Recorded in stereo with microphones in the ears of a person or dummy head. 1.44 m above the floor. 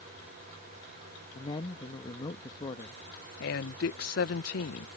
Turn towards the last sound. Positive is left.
turn(degrees=60)  # may be behind; listen again after turning